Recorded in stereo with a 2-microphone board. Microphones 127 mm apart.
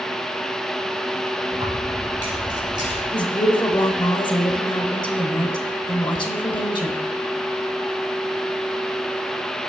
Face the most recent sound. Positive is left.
turn(degrees=40)  # may be behind; listen again after turning